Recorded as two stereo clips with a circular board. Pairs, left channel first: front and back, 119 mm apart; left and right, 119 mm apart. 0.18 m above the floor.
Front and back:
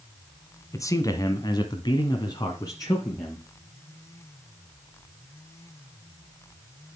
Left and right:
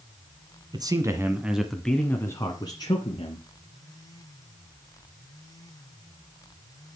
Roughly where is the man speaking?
Ahead right.